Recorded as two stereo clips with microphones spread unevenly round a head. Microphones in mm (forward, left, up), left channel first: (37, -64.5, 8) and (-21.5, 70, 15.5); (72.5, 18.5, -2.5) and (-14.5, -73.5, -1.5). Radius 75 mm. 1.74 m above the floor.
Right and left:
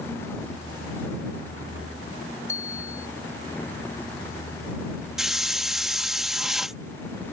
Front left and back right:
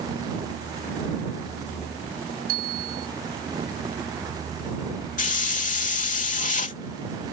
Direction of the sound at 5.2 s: 25° left.